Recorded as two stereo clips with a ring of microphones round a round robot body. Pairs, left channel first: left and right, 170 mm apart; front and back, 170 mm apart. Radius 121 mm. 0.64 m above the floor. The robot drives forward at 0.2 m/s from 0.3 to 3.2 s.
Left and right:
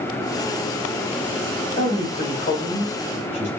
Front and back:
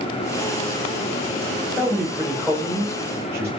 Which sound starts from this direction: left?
A man speaking, at 1.8 s.